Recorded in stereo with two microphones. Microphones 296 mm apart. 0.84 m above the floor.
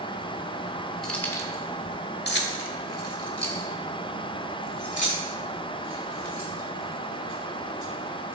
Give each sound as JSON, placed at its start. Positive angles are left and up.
{"t": 1.0, "sound": "keys jangling", "side_deg": 0, "distance_m": 1.5}